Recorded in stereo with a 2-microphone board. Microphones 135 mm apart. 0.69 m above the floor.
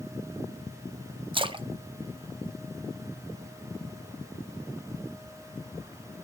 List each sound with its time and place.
1.3 s a splash: 35° right (ahead or behind), 0.5 m